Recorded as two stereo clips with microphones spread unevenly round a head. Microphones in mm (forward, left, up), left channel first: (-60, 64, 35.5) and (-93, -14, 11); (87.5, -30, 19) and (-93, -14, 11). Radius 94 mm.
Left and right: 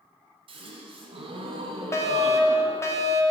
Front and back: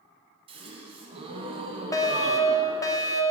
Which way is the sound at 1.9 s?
30° left.